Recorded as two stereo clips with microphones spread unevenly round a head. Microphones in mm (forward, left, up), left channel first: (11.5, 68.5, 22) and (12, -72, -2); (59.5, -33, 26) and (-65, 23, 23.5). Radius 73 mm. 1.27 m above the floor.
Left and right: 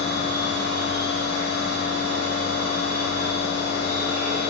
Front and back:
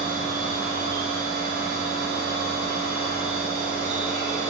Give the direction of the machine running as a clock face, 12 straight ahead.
10 o'clock.